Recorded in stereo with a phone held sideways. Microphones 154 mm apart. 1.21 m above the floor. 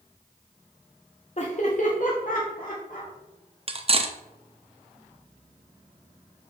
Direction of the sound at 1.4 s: 45° left (ahead or behind).